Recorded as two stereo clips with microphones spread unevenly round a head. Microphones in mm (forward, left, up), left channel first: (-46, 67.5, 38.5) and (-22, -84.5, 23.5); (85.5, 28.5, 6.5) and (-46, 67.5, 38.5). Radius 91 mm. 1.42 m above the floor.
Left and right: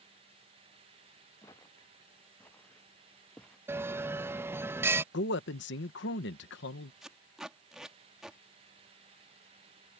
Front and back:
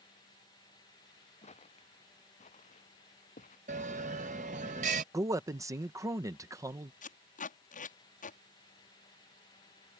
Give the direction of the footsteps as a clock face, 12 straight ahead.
11 o'clock.